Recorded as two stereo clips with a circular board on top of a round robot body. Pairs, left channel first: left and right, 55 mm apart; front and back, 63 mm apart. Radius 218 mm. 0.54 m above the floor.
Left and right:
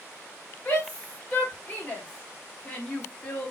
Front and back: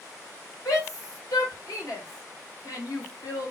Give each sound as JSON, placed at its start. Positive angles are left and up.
{"t": 0.7, "sound": "a shout", "azimuth_deg": 25, "distance_m": 4.0}